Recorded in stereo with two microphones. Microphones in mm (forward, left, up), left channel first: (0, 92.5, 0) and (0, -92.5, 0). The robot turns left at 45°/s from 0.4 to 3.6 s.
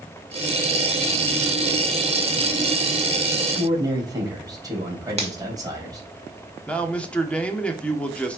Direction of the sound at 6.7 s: 5° left (ahead or behind).